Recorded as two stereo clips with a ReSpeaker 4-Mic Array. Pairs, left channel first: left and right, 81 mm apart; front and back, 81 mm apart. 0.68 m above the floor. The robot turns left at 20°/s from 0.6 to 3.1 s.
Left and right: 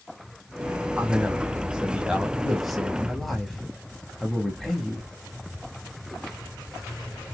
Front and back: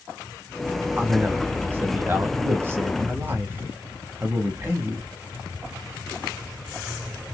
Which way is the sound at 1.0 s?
145° right.